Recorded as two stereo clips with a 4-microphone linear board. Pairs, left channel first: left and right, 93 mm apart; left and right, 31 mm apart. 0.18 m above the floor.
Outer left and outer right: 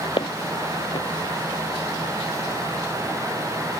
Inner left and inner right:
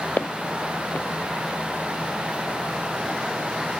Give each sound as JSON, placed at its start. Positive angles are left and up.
{"t": 0.2, "sound": "footsteps", "side_deg": 65}